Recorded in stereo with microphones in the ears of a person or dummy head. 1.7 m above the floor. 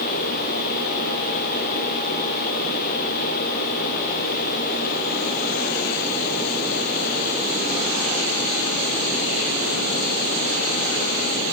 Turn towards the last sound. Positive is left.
No sound to turn to.